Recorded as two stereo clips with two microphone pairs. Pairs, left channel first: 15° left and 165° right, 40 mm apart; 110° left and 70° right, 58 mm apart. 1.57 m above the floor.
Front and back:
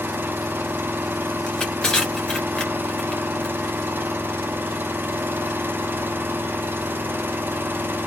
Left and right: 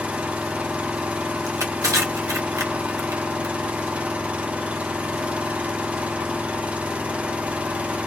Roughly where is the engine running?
Behind right.